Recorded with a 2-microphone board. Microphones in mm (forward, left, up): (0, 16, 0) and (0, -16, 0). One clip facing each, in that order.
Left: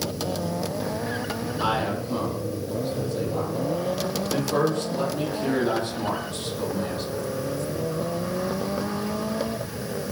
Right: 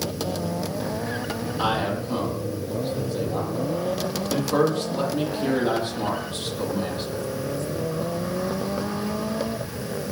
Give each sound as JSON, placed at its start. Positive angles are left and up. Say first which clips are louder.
{"t": 1.6, "sound": "a man speaking", "louder": "right 1 dB", "side_deg": -30, "distance_m": 9.5}